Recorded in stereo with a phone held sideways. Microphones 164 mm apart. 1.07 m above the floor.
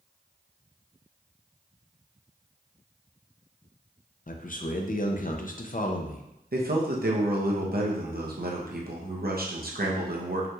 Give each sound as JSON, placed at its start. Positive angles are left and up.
{"t": 4.3, "sound": "a man speaking", "side_deg": 55, "distance_m": 0.5}
{"t": 6.5, "sound": "a man speaking", "side_deg": -70, "distance_m": 0.8}